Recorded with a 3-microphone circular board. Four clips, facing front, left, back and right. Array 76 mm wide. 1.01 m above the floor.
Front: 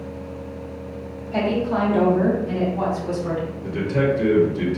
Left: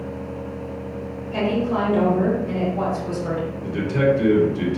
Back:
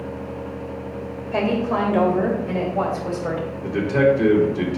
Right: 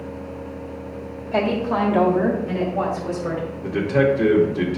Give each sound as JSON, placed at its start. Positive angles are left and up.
{"t": 1.3, "sound": "a woman speaking", "azimuth_deg": -130, "distance_m": 3.5}
{"t": 3.6, "sound": "a man speaking", "azimuth_deg": -125, "distance_m": 2.5}